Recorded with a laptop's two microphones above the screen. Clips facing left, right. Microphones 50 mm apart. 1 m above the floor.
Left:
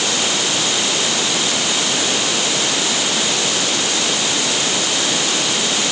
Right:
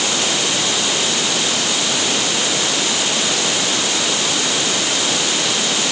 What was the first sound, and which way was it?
Only background noise.